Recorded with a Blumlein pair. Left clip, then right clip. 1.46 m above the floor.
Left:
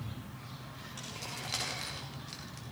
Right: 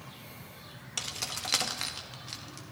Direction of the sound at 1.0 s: 55° right.